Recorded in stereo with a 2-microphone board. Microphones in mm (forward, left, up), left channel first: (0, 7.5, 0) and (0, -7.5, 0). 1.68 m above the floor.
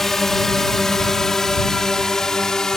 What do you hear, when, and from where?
0.0 s a drone: 25° left (ahead or behind); by 2.8 s 40° left (ahead or behind)